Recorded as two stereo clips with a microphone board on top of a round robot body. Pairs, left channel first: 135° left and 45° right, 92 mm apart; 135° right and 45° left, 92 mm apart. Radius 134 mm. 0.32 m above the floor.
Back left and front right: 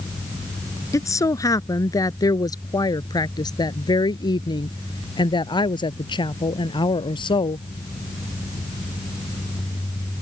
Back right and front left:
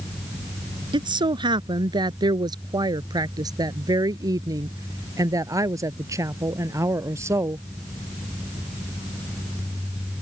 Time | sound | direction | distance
0.9 | a woman speaking | 80° left | ?